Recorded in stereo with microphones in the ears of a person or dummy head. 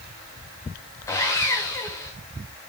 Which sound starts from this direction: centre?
Sawing, at 1.1 s.